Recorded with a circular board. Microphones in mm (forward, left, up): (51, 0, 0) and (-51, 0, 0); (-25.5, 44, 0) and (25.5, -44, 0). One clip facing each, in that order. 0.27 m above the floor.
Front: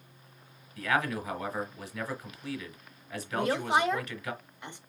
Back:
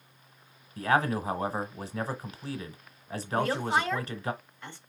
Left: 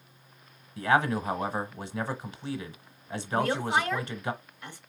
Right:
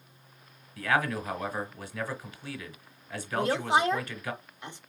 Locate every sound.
0.8 s a man speaking: 155° left, 1.1 m
3.3 s a woman speaking: 40° right, 1.0 m